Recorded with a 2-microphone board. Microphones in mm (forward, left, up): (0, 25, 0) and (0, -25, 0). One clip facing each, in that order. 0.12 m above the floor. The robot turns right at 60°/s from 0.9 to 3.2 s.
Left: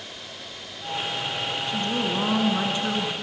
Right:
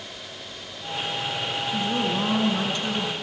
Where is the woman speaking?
5° right (ahead or behind), 1.6 m; by 3.1 s 20° left (ahead or behind), 1.6 m.